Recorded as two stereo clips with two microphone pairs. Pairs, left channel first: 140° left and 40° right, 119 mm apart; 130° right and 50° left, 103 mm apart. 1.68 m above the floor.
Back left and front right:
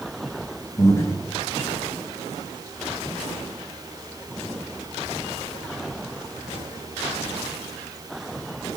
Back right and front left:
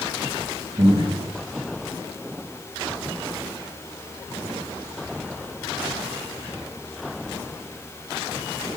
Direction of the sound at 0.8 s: 80° left.